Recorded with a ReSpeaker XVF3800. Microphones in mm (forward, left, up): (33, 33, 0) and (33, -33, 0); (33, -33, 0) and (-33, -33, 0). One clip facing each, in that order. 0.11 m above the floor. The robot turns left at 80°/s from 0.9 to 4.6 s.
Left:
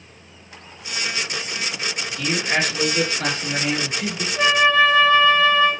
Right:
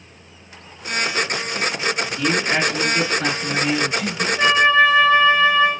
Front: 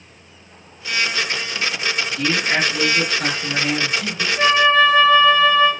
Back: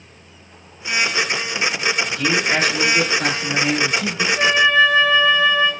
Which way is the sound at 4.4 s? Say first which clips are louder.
Right 1 dB, front 1 dB; 120° left.